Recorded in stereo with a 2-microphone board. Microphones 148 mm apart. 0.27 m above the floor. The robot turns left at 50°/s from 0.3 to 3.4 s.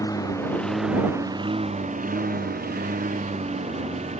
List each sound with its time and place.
0.0 s a lawn mower: 25° left; by 4.2 s 130° right